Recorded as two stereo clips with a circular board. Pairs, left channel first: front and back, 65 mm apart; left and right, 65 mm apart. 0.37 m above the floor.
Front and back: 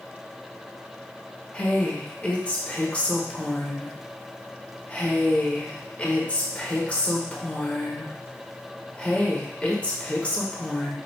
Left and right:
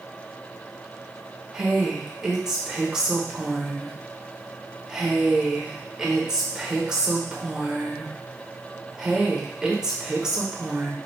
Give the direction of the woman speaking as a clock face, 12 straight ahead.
1 o'clock.